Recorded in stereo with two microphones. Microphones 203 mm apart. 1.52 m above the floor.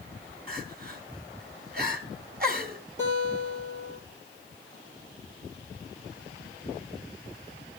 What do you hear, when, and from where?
0.5 s crying: 45° right (ahead or behind), 2 m
3.0 s a guitar: 60° right (ahead or behind), 8.5 m